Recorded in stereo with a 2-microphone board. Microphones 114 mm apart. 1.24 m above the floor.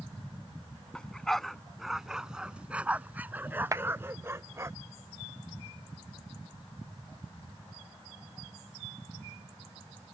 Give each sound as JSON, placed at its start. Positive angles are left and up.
{"t": 0.9, "sound": "a dog barking", "side_deg": 10}
{"t": 3.7, "sound": "a clap", "side_deg": -30}